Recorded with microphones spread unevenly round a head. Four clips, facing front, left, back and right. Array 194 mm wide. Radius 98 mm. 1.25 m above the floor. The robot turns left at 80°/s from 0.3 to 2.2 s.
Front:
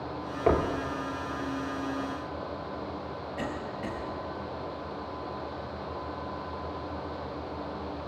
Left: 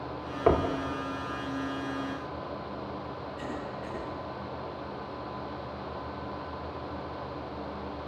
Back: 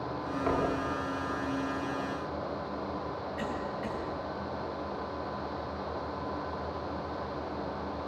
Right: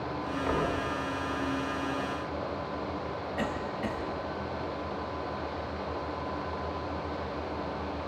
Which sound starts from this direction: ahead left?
Knocking, at 0.5 s.